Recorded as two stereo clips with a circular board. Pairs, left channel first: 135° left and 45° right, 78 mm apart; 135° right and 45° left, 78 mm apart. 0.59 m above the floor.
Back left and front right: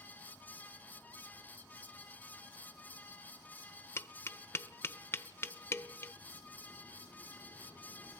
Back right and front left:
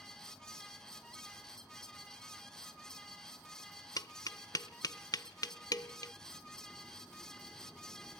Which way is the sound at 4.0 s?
170° right.